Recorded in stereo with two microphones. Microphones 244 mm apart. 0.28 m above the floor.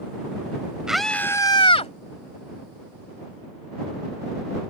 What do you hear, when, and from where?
0.9 s a scream: 5° right (ahead or behind); by 1.9 s 25° left (ahead or behind)